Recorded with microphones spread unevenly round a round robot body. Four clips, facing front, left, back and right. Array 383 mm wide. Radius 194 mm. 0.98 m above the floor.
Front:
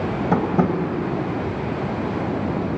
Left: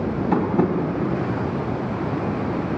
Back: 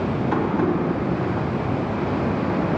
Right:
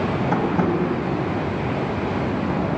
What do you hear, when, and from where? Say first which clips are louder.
0.3 s tapping: left 2 dB, front 2 dB; 5° right, 1.6 m